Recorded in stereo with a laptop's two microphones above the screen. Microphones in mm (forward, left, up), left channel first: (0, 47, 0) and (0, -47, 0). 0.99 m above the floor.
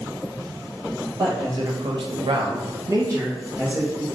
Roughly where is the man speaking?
Right.